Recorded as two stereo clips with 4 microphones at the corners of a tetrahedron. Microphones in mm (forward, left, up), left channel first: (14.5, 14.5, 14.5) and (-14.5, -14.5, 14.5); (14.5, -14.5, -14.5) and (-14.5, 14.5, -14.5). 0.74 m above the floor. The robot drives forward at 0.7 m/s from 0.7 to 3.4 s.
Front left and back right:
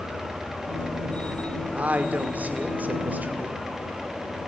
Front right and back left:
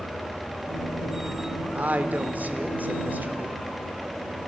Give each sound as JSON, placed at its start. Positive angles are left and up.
{"t": 1.8, "sound": "a woman speaking", "azimuth_deg": 180, "distance_m": 2.0}